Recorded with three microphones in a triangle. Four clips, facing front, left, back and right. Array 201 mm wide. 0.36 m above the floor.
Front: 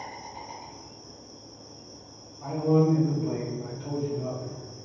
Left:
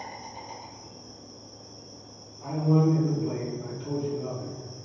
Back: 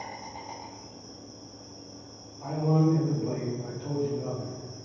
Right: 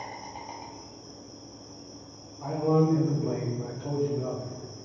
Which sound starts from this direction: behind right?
An insect, at 0.0 s.